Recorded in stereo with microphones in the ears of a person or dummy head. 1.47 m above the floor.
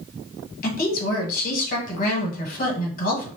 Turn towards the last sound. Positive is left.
turn(degrees=45)  # may be behind; listen again after turning